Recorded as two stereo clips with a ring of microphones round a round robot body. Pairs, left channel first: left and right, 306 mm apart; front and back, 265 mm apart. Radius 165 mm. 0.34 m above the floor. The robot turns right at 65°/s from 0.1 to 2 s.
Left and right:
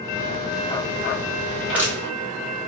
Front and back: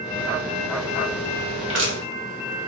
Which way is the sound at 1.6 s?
175° left.